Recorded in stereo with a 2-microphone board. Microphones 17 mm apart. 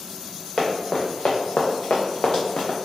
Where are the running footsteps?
45° left (ahead or behind), 1.2 m; by 2.8 s 50° left (ahead or behind), 1.0 m.